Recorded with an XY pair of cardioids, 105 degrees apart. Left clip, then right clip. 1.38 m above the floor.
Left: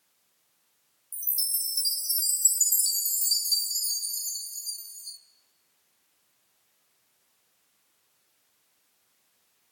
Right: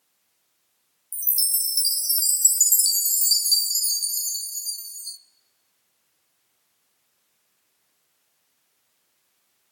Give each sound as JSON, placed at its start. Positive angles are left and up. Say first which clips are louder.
{"t": 1.1, "sound": "a chime", "louder": "right 6 dB", "azimuth_deg": -60, "distance_m": 1.2}